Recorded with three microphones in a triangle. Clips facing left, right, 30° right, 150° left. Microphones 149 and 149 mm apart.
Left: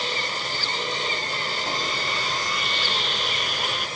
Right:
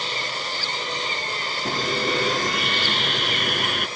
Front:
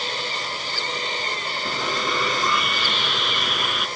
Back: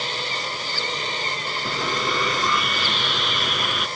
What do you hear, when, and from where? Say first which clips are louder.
1.6 s sawing: right 8 dB, back 1 dB; 120° right